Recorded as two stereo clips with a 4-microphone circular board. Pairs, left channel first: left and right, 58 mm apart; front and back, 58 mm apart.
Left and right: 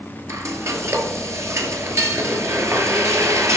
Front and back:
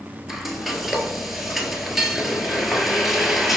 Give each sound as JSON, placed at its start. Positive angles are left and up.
{"t": 0.3, "sound": "frying", "azimuth_deg": -90, "distance_m": 1.2}